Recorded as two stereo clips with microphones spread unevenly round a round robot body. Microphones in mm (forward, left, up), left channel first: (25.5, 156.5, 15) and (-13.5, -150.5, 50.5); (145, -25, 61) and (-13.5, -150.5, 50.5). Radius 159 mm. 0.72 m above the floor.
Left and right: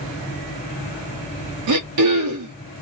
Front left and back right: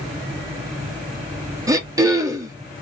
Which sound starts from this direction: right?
Throat clearing, at 1.7 s.